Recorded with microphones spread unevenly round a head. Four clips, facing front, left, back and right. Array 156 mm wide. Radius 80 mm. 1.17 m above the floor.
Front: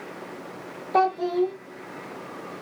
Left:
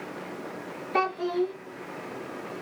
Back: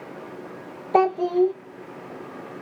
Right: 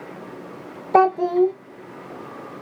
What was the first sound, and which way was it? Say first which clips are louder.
A child speaking: right 10 dB, back 3 dB; 115° right.